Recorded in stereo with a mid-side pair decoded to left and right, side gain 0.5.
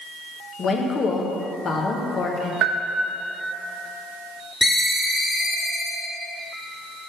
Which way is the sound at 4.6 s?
25° left.